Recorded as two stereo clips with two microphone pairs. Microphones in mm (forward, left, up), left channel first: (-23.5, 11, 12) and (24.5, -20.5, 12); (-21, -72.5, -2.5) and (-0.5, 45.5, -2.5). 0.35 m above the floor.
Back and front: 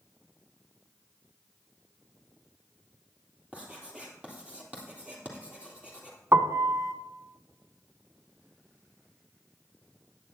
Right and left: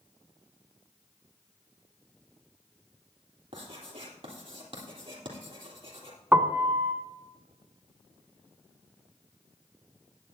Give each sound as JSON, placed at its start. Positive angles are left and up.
{"t": 3.5, "sound": "writing", "azimuth_deg": 40, "distance_m": 3.0}
{"t": 6.3, "sound": "a piano", "azimuth_deg": 5, "distance_m": 1.0}